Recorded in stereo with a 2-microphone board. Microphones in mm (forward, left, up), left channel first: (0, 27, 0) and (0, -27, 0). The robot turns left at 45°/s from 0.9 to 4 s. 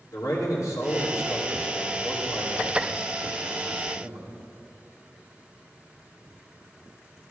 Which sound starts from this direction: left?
A man speaking, at 0.1 s.